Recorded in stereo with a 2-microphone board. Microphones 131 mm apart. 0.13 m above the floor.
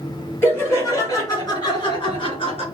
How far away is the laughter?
About 2.5 m.